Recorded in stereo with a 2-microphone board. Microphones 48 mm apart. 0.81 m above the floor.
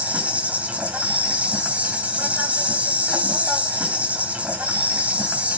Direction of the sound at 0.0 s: 30° right (ahead or behind).